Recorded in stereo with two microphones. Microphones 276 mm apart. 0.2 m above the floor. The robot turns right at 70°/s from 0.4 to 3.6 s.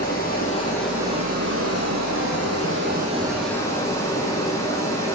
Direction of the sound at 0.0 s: 145° left.